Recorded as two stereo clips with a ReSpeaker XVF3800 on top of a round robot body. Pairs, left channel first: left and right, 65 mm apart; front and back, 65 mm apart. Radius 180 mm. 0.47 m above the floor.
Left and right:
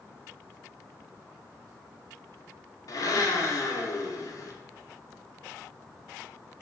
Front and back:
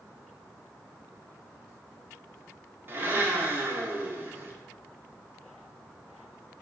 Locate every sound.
2.9 s a blender: 125° left, 0.5 m